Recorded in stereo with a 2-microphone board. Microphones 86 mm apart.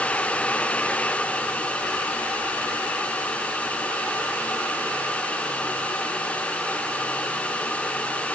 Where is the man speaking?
No man speaking in this recording.